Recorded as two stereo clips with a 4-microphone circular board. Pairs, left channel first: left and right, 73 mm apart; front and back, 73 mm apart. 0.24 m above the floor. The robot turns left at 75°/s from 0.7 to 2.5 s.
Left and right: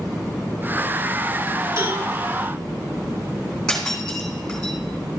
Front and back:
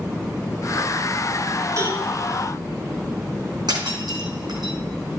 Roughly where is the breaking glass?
Behind.